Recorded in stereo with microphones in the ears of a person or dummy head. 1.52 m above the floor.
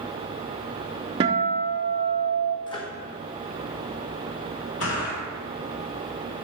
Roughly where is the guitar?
Right.